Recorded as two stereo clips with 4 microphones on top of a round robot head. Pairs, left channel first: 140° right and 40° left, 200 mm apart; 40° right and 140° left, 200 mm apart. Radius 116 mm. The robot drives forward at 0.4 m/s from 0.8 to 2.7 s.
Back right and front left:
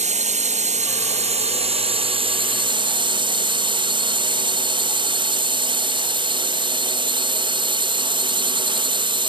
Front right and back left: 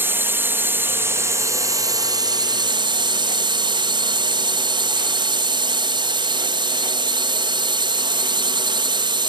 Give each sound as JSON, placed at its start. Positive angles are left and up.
{"t": 0.0, "sound": "a drone", "azimuth_deg": 65}